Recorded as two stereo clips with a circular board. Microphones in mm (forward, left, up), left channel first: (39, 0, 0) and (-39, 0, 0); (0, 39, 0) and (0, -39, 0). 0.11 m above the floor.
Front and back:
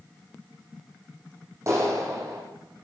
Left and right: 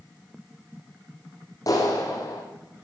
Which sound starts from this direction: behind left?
A clap, at 1.7 s.